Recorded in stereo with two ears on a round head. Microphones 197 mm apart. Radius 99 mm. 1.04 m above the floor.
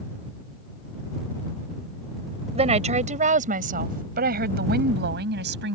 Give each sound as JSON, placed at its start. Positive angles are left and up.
{"t": 2.5, "sound": "a woman speaking", "side_deg": -30}